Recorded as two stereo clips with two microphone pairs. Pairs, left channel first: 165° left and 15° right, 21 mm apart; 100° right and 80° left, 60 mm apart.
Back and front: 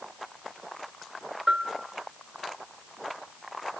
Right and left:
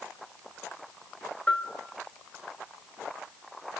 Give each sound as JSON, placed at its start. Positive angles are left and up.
{"t": 1.5, "sound": "a bell", "azimuth_deg": -40, "distance_m": 2.0}